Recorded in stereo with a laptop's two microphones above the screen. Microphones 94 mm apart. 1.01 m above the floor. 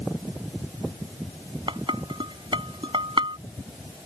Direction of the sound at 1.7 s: 60° right (ahead or behind).